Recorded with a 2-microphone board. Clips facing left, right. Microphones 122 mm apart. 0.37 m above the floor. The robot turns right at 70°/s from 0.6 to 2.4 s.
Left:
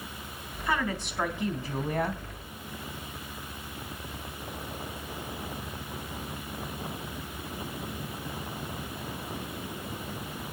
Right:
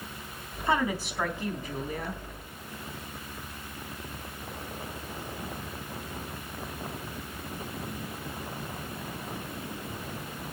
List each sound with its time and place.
0.7 s a woman speaking: 30° right, 3.5 m; by 2.2 s 80° left, 3.5 m